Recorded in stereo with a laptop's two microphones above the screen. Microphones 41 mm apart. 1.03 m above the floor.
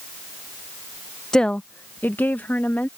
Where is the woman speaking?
15° left (ahead or behind); by 2.9 s 50° left (ahead or behind).